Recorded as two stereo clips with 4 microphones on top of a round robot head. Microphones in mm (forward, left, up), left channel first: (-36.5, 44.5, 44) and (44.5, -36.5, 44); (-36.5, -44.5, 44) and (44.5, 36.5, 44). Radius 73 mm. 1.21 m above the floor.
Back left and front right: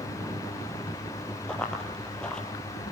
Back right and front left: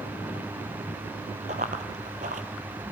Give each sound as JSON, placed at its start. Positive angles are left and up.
{"t": 1.5, "sound": "running footsteps", "azimuth_deg": 55, "distance_m": 1.6}